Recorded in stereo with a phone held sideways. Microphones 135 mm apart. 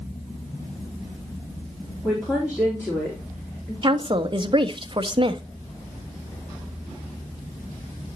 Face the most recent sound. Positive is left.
turn(degrees=-40)  # may be behind; listen again after turning